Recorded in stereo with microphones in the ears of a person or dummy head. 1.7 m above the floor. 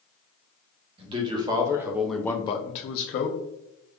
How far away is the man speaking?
About 1.4 m.